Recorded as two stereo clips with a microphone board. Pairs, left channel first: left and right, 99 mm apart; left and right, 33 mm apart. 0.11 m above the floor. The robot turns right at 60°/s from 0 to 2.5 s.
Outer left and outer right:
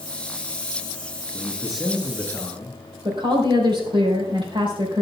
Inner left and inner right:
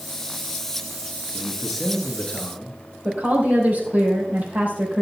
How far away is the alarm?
I don't hear an alarm.